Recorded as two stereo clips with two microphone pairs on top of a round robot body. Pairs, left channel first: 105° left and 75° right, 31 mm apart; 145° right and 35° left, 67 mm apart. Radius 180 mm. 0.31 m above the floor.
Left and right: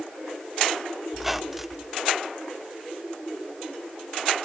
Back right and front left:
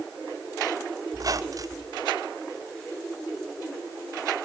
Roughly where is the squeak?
Ahead.